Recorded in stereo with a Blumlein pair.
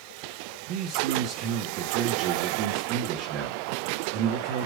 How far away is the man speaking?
About 2.5 m.